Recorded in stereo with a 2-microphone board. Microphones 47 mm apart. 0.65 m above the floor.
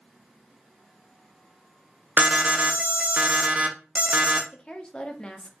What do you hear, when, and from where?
2.2 s an alarm: 30° right (ahead or behind), 0.6 m
4.5 s a woman speaking: 20° left (ahead or behind), 0.6 m